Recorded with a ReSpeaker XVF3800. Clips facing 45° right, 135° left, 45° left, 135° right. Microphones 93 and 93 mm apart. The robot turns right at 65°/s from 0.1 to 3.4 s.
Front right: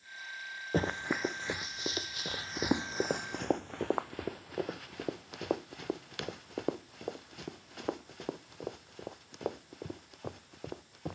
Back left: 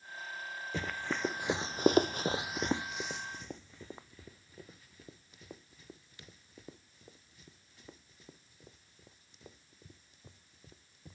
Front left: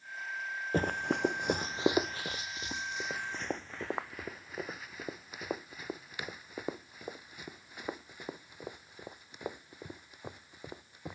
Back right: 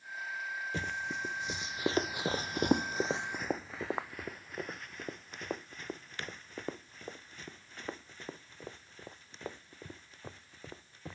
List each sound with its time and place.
0.7 s running footsteps: straight ahead; by 11.2 s 30° right